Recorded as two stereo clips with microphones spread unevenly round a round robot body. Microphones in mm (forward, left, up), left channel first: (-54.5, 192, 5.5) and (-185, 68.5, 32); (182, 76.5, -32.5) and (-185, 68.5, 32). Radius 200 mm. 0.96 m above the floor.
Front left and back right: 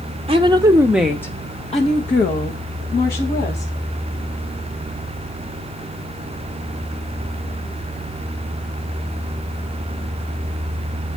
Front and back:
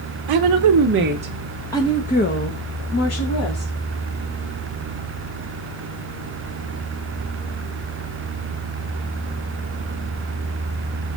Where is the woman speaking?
165° left, 1.1 m; by 3.7 s 35° left, 2.5 m.